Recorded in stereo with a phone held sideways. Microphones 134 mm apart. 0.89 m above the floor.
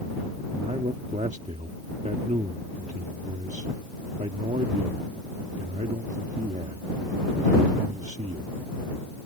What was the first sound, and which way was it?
A man speaking, 60° right (ahead or behind).